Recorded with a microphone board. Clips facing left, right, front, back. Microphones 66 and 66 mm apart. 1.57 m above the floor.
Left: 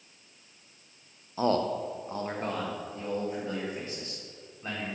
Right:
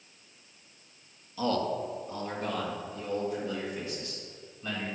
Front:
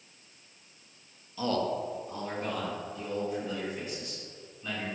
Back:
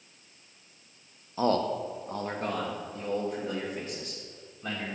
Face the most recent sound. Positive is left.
turn(degrees=145)